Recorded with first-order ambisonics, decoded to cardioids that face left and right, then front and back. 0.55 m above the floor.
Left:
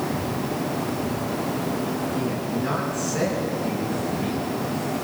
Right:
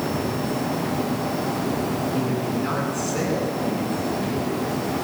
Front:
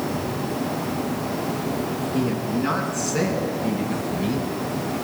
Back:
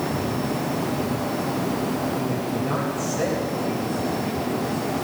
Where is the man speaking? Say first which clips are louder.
Right 2 dB, front 1 dB; 15° right, 8 m; by 4.6 s straight ahead, 5.5 m.